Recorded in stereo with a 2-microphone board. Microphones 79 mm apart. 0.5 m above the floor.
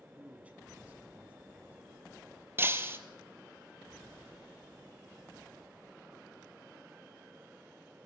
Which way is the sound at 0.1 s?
15° right (ahead or behind).